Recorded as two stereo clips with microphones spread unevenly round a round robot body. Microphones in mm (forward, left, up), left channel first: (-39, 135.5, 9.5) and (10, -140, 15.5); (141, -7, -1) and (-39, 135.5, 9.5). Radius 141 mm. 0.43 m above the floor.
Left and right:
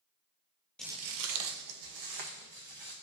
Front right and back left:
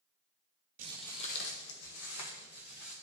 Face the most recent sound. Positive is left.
turn(degrees=-65)